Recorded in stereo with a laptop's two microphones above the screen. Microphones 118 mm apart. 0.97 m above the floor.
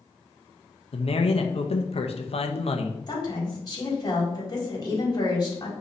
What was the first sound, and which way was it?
A man speaking, 55° left (ahead or behind).